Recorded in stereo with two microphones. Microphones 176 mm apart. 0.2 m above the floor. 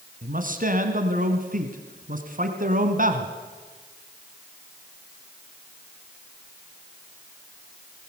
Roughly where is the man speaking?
Right.